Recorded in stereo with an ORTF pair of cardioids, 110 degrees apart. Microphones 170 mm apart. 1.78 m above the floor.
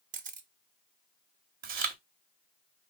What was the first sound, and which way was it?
A camera shutter, 50° right.